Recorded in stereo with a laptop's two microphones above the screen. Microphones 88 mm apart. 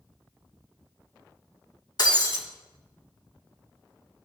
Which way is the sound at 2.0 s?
55° left (ahead or behind).